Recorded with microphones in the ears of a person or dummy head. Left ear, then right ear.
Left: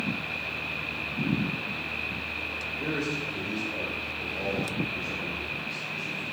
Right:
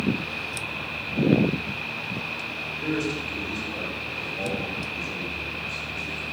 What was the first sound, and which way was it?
A man speaking, 60° right (ahead or behind).